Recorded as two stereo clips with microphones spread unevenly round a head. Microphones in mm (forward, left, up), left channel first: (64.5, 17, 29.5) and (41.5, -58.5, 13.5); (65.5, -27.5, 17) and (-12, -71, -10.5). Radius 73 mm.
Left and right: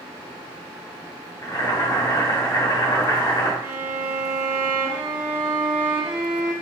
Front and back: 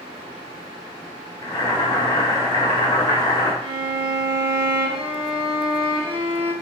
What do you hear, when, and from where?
1.4 s boiling: 70° left, 1.0 m
3.6 s a violin: 130° right, 1.2 m